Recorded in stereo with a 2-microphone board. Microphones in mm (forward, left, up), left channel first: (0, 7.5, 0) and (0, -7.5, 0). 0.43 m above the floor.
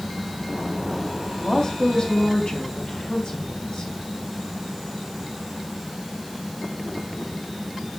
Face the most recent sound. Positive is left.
turn(degrees=75)  # may be behind; listen again after turning